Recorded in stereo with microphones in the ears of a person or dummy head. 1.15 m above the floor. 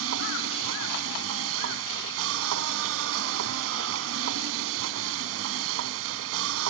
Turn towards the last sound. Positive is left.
turn(degrees=-75)  # may be behind; listen again after turning